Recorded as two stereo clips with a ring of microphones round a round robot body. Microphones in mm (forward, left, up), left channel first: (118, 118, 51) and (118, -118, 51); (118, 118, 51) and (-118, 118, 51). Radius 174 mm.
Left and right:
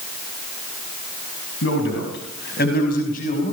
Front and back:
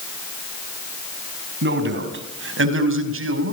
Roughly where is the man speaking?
Behind left.